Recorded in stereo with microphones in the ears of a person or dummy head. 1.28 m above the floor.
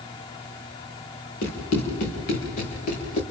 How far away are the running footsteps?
About 5.5 m.